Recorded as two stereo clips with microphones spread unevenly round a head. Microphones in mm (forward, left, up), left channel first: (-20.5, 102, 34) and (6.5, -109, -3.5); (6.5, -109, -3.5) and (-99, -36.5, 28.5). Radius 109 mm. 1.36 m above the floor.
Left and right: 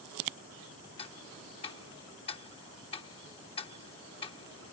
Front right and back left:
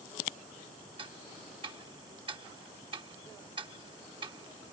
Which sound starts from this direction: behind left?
Ticking, at 1.0 s.